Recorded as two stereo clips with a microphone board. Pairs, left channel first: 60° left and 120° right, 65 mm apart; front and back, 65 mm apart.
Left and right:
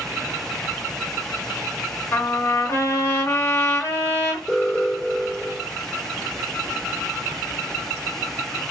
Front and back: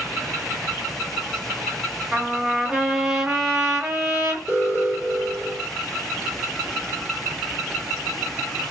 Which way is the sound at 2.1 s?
110° left.